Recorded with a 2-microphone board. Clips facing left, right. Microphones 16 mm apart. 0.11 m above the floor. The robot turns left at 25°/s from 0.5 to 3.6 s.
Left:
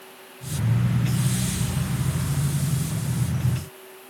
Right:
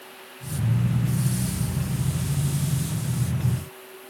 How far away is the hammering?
I don't hear hammering.